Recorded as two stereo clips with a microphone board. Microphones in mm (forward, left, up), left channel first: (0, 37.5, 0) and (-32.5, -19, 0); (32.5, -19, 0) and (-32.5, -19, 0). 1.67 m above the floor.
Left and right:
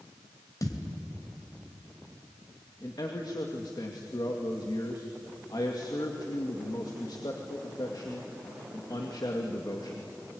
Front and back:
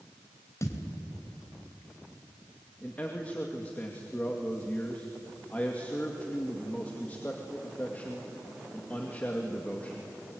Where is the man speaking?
65° left, 2.5 m.